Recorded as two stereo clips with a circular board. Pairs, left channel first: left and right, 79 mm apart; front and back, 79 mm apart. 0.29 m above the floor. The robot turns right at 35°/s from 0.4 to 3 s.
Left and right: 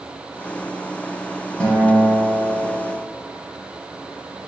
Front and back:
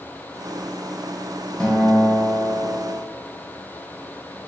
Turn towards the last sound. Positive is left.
turn(degrees=95)